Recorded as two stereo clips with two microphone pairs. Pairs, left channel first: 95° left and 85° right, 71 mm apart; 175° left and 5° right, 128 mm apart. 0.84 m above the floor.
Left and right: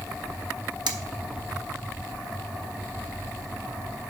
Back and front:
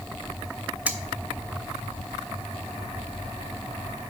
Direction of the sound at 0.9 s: 80° right.